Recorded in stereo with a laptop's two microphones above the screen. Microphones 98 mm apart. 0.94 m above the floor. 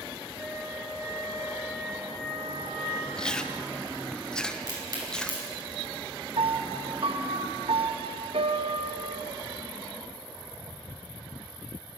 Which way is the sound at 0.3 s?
45° right (ahead or behind).